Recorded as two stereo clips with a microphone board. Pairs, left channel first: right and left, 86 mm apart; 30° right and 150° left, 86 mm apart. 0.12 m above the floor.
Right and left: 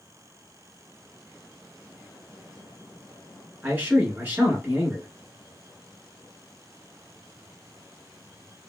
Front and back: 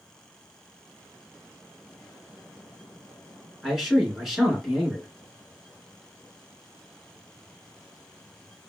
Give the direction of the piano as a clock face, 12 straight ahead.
I don't hear a piano.